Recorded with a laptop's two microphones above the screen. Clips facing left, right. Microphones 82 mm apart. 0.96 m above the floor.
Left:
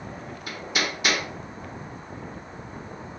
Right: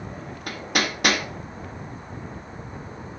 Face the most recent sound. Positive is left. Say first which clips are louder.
# right 3 dB
turn(degrees=-60)  # may be behind; listen again after turning